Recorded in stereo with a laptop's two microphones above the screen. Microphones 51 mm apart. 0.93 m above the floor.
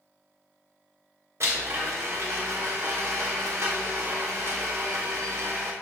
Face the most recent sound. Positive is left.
turn(degrees=-60)  # may be behind; listen again after turning